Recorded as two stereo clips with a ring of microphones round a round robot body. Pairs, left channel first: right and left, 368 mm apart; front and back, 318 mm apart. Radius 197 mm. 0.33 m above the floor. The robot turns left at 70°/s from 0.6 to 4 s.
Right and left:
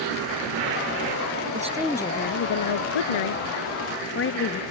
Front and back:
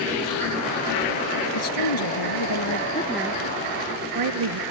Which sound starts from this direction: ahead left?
A woman speaking, at 1.5 s.